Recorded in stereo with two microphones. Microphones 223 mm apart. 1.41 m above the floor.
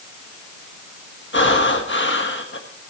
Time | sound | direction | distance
1.3 | breathing | 55° left (ahead or behind) | 1.5 m